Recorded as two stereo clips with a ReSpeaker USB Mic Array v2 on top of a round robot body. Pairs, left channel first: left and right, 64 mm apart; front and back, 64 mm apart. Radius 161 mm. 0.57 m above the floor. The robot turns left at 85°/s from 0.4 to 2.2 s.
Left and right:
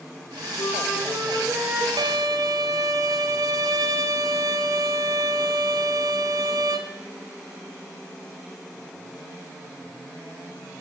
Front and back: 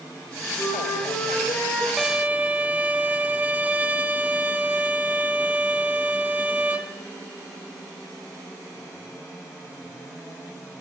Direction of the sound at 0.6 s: 65° left.